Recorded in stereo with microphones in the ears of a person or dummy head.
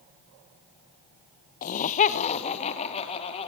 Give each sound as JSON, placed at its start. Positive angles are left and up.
{"t": 1.6, "sound": "laughter", "side_deg": 50, "distance_m": 0.9}